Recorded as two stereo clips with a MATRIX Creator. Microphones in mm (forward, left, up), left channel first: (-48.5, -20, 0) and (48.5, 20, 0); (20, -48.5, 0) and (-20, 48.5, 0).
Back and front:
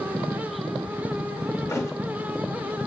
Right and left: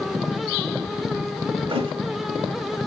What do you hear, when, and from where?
1.7 s a thud: 140° left, 0.8 m